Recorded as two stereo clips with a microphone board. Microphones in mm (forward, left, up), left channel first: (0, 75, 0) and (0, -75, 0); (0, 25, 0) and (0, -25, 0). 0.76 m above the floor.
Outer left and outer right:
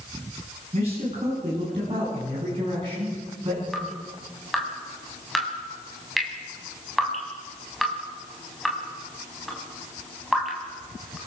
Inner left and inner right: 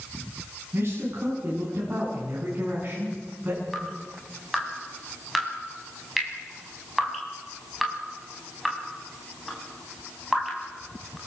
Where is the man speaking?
45° right (ahead or behind), 8 m; by 3.6 s 35° right (ahead or behind), 9 m.